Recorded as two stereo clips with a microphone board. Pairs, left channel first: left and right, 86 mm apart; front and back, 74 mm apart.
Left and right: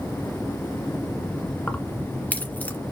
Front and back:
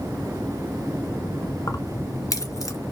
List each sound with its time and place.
1.7 s keys jangling: 25° left, 1.8 m